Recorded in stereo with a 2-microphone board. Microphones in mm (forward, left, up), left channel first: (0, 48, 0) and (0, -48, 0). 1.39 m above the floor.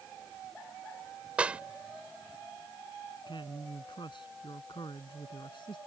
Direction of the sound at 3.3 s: 60° left (ahead or behind).